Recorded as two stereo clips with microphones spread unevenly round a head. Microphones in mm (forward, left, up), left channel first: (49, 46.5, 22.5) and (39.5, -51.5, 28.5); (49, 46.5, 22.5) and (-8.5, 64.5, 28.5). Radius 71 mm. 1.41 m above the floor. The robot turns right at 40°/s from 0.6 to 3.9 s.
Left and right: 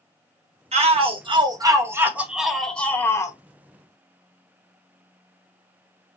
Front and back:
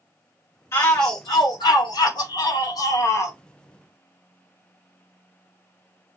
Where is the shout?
80° right, 1.6 m; by 3.4 s 30° left, 1.6 m.